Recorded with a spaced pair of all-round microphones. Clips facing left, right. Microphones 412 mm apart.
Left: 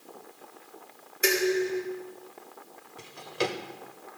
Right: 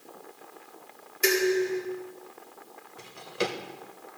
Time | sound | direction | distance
1.2 | dishes clattering | 10° right (ahead or behind) | 2 m
3.0 | a drawer | centre (ahead or behind) | 1.3 m